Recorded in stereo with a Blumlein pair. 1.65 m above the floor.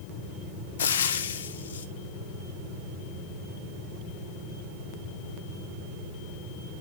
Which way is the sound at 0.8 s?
65° left.